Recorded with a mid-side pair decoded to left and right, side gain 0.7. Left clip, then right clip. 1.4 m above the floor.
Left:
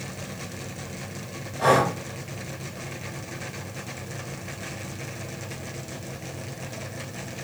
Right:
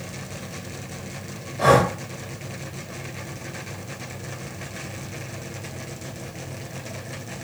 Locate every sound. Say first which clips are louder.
1.6 s breathing: right 3 dB; 15° right, 0.7 m